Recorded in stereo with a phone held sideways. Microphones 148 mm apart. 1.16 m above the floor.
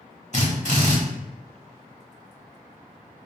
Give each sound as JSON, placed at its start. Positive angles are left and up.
{"t": 0.3, "sound": "a drill", "side_deg": 50, "distance_m": 1.2}